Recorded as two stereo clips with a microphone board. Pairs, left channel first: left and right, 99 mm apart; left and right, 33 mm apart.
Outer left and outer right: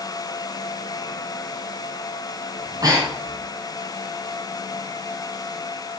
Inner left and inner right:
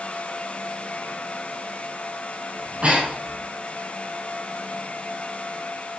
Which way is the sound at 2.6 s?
40° right (ahead or behind).